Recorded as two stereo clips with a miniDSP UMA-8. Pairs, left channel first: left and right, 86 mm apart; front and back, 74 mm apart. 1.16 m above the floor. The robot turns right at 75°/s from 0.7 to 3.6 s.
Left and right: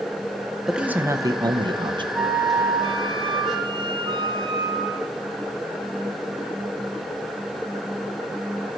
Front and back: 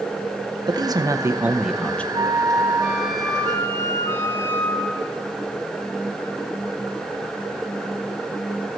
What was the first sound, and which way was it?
A man speaking, 175° right.